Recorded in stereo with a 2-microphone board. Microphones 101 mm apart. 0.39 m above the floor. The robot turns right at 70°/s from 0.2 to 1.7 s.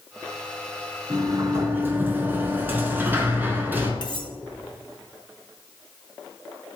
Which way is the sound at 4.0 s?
50° left (ahead or behind).